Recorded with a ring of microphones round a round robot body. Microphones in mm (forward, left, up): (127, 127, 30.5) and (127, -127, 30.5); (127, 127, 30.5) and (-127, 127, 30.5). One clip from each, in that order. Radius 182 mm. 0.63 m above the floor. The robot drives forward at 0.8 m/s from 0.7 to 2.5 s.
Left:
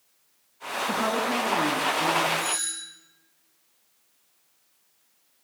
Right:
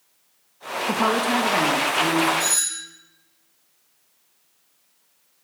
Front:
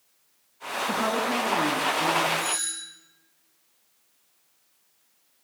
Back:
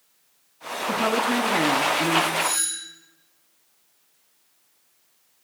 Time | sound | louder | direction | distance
0.9 | a woman speaking | right 5 dB, back 4 dB | 75° right | 0.7 m
2.4 | a doorbell | right 5 dB, back 4 dB | 120° right | 1.9 m